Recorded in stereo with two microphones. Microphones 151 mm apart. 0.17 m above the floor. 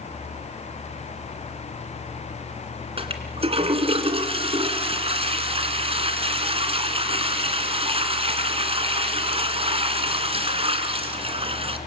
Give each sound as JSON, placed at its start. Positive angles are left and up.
{"t": 3.0, "sound": "a toilet flushing", "side_deg": -40, "distance_m": 2.0}